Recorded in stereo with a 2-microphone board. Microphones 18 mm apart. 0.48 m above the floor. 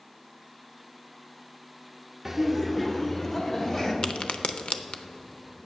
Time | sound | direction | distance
2.2 | laughter | 15° right (ahead or behind) | 0.7 m
4.0 | a crack | 65° left (ahead or behind) | 0.5 m